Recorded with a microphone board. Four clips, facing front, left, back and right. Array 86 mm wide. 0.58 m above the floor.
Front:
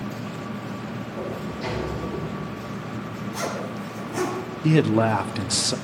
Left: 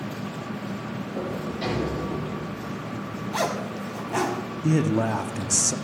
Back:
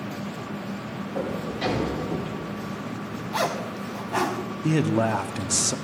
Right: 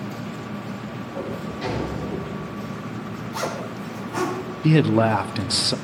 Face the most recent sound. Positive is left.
turn(degrees=-70)